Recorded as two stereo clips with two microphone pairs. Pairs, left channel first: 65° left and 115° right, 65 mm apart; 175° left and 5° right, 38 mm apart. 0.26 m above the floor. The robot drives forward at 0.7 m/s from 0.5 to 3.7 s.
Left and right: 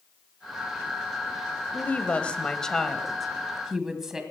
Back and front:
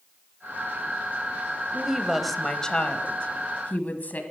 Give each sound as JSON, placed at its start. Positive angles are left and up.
{"t": 1.7, "sound": "a woman speaking", "azimuth_deg": 40, "distance_m": 1.0}